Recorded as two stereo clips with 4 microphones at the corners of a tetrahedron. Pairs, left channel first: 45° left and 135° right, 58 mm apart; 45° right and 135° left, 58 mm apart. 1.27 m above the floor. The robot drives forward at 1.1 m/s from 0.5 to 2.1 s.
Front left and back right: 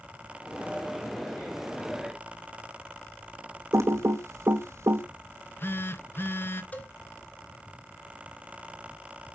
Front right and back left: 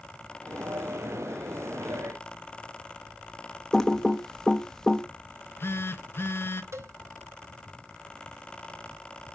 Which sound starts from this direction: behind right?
Typing on a keyboard, at 3.7 s.